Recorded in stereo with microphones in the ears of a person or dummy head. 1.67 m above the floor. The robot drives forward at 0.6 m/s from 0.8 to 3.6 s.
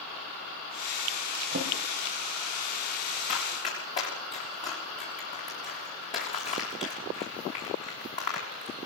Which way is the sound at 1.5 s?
45° right (ahead or behind).